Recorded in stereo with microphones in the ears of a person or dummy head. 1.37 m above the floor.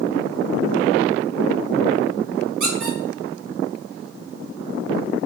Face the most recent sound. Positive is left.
turn(degrees=-65)  # may be behind; listen again after turning